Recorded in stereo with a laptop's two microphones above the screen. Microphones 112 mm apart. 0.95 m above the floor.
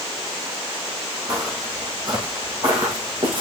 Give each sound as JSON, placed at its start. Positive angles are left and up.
{"t": 1.3, "sound": "footsteps", "side_deg": -25, "distance_m": 1.8}